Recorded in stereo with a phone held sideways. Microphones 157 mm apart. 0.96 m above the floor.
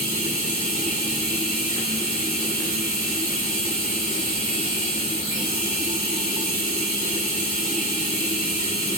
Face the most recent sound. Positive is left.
turn(degrees=60)  # may be behind; listen again after turning